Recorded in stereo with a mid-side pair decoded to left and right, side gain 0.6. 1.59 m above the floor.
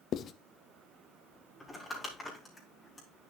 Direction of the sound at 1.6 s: 15° left.